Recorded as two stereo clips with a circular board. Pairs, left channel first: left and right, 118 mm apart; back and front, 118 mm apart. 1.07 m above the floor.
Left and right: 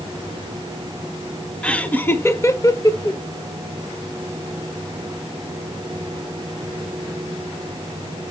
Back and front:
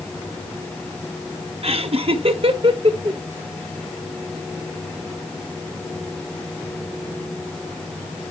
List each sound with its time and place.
1.6 s laughter: 10° left, 1.2 m; by 3.2 s 40° left, 1.6 m